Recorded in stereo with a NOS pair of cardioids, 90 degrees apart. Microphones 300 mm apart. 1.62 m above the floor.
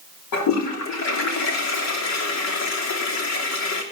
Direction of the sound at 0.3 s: 65° left.